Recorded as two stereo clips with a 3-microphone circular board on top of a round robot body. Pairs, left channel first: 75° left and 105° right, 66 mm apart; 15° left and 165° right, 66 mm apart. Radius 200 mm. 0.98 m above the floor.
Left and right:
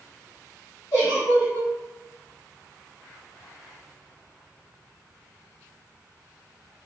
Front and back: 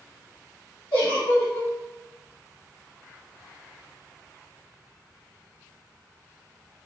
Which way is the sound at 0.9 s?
30° left.